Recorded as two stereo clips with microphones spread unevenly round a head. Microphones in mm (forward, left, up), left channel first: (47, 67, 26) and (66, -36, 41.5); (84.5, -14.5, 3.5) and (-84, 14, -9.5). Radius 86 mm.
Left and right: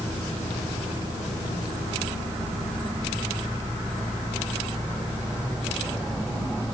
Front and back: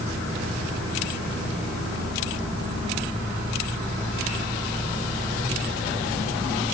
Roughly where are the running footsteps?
No running footsteps in this recording.